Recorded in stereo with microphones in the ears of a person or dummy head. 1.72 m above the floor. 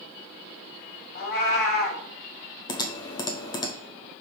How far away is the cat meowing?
About 1.7 m.